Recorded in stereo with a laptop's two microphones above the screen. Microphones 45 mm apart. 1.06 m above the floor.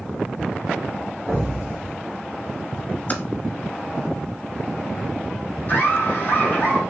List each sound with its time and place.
1.3 s an explosion: 5° left (ahead or behind), 2 m
3.1 s typing on a keyboard: 35° left (ahead or behind), 1.5 m
5.7 s laughter: 45° left (ahead or behind), 2 m